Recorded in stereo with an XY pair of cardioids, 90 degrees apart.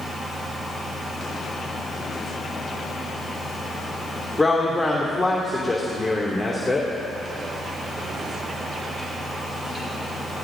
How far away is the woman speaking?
About 3 m.